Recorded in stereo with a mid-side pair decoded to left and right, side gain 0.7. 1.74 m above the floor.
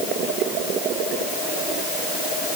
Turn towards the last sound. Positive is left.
No sound to turn to.